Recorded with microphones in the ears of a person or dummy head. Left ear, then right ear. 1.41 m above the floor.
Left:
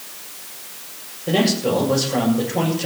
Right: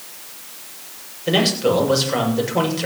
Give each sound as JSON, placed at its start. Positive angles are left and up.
{"t": 1.3, "sound": "a man speaking", "side_deg": -65, "distance_m": 7.0}